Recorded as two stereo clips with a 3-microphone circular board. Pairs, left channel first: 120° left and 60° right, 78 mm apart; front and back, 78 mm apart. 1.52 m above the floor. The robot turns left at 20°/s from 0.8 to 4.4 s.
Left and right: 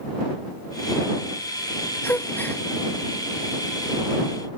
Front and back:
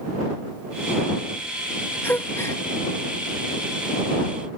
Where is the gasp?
60° left; by 2.6 s 50° left.